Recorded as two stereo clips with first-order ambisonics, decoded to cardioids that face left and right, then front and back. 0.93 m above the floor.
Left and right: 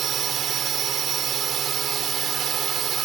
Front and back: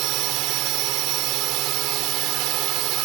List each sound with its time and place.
0.0 s a drone: 150° right